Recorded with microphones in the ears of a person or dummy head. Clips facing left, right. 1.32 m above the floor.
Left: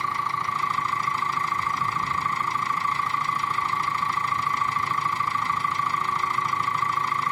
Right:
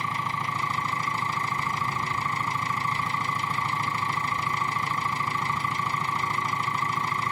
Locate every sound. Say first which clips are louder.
0.0 s an engine running: left 1 dB; 25° right (ahead or behind)